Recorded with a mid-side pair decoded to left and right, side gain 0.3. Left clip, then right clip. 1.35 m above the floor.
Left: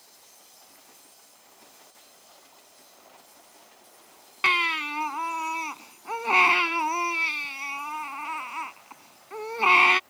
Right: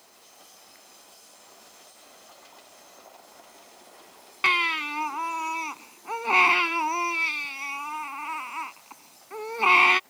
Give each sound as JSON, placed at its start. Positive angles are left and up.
{"t": 4.4, "sound": "a baby crying", "azimuth_deg": 0}